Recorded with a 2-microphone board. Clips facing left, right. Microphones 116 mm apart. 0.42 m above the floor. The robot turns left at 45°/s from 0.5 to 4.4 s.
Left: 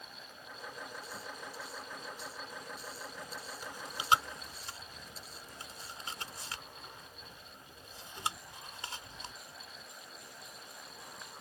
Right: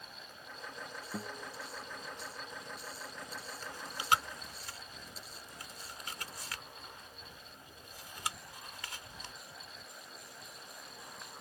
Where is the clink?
I don't hear a clink.